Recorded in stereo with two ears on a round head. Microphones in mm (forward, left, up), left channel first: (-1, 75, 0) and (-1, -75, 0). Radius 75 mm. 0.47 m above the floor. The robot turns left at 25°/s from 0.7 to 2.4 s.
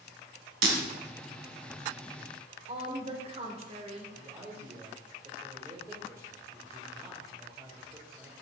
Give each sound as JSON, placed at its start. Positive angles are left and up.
{"t": 0.6, "sound": "breaking glass", "side_deg": -75, "distance_m": 1.9}
{"t": 2.7, "sound": "a woman speaking", "side_deg": -40, "distance_m": 1.4}
{"t": 4.2, "sound": "a man speaking", "side_deg": -15, "distance_m": 1.6}